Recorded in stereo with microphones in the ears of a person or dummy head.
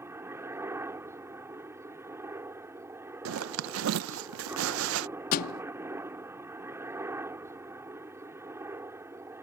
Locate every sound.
0.0 s a helicopter: 10° right (ahead or behind)
3.2 s a zipper: 70° right (ahead or behind)
5.3 s a thud: 50° left (ahead or behind)